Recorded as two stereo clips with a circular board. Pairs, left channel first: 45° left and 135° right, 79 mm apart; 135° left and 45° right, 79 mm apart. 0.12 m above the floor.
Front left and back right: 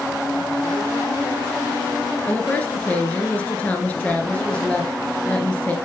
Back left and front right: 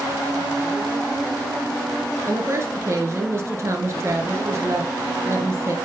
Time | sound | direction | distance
2.3 | a woman speaking | 15° right | 1.8 m